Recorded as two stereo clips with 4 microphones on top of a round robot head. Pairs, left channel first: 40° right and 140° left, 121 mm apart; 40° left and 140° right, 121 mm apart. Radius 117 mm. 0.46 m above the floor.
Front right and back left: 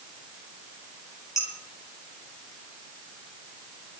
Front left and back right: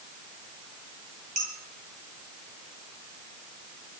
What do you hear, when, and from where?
1.4 s dishes clattering: 110° right, 8.5 m